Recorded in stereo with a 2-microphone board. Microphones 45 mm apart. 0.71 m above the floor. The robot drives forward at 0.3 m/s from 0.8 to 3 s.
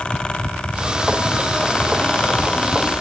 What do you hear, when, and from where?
Only background noise.